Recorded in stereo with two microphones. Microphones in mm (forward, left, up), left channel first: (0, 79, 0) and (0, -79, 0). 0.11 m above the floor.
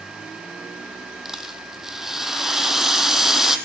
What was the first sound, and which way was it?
A rattle, 5° right (ahead or behind).